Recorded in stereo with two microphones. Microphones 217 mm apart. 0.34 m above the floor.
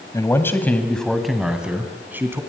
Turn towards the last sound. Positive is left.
turn(degrees=-10)  # may be behind; listen again after turning